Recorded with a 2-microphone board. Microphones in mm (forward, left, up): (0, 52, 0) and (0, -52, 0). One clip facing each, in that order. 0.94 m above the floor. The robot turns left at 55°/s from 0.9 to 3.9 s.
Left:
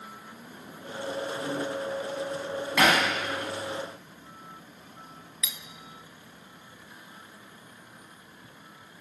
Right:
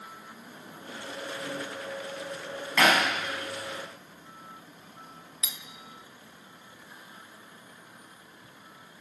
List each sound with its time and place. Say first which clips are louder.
2.8 s hammering: even; 10° left (ahead or behind), 5.5 m; by 3.0 s 20° left (ahead or behind), 5.5 m
5.4 s cutlery clinking: left 2 dB; 30° right (ahead or behind), 0.6 m